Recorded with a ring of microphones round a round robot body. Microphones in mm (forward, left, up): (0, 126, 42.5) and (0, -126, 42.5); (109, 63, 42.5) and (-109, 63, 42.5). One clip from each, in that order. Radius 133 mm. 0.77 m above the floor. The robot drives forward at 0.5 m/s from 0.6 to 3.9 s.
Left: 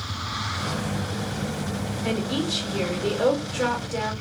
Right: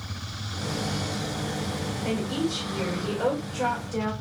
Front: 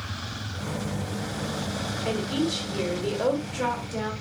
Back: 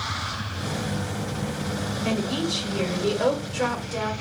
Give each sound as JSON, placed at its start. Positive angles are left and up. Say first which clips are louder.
{"t": 2.0, "sound": "a woman speaking", "louder": "left 3 dB, back 1 dB", "azimuth_deg": 75, "distance_m": 1.8}